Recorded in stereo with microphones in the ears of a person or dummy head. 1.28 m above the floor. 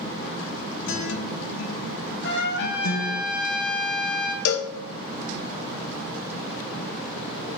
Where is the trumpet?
60° left (ahead or behind), 1.3 m.